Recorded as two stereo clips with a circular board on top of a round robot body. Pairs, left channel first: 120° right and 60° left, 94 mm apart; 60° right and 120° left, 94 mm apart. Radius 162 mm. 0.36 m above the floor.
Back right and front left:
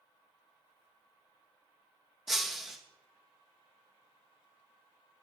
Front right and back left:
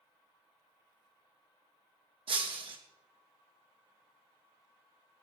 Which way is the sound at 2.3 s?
150° left.